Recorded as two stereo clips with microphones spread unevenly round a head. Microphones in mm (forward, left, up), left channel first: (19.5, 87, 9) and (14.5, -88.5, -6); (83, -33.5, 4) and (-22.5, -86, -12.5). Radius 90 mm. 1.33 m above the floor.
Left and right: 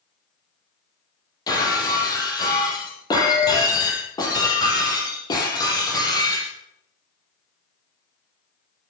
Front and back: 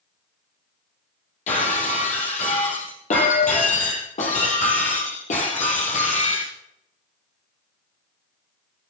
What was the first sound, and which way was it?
Breaking glass, 20° left.